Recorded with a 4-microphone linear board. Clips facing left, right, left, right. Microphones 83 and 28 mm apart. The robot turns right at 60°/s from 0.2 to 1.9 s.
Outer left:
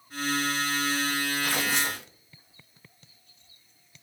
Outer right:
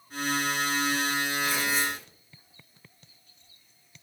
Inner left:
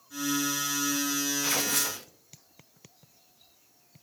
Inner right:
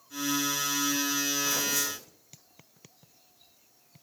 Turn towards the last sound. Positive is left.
turn(degrees=70)  # may be behind; listen again after turning